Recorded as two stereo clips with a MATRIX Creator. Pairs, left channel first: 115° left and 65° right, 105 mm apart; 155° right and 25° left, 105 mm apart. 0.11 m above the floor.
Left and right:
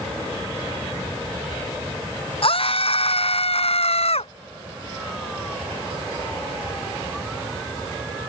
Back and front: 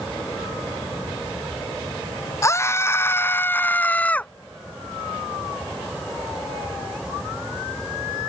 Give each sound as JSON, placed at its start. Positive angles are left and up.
{"t": 2.4, "sound": "a scream", "azimuth_deg": 140}